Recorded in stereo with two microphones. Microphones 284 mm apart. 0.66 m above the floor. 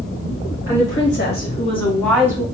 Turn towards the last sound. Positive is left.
turn(degrees=-15)  # may be behind; listen again after turning